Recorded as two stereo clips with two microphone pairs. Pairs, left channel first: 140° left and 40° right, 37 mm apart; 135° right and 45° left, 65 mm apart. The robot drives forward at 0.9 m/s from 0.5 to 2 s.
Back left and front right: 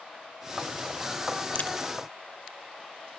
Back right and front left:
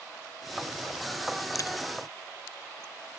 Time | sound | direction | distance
1.6 | a crack | 170° right | ?